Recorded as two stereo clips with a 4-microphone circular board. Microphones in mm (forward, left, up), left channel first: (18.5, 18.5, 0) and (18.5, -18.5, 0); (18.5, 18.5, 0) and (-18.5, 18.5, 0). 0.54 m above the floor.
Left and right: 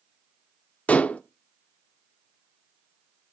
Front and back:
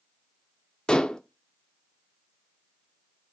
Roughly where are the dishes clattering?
Ahead left.